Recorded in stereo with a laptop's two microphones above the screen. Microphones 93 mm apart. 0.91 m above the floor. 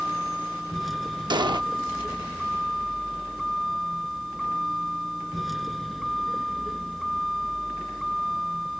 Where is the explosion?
55° right (ahead or behind).